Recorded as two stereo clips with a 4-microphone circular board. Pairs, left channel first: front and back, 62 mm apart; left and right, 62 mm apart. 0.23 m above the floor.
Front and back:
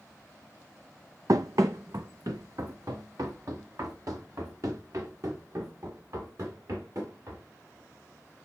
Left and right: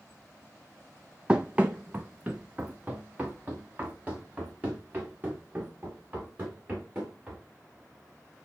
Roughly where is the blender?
No blender in this recording.